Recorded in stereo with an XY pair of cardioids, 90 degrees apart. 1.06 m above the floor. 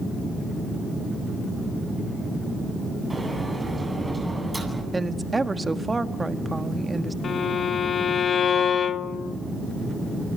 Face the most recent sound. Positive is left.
turn(degrees=55)